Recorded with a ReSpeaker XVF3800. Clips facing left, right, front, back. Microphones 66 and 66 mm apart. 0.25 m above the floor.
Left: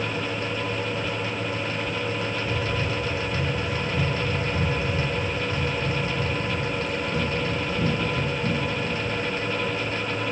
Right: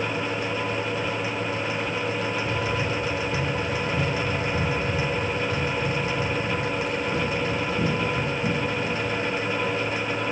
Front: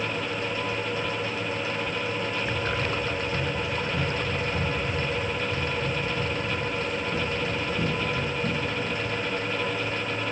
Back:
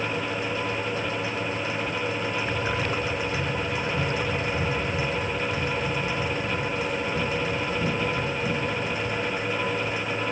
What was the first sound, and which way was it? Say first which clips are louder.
Running footsteps: right 1 dB, back 1 dB; 90° right.